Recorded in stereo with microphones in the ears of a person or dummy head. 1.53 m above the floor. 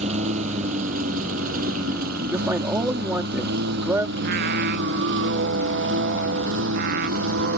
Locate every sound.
0.0 s a lawn mower: 40° right (ahead or behind); by 7.6 s 80° right
2.3 s a man speaking: 10° right (ahead or behind)
4.2 s singing: 55° right (ahead or behind)